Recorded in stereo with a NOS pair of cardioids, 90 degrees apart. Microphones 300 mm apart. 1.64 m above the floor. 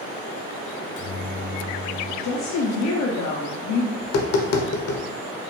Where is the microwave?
70° left, 1.8 m.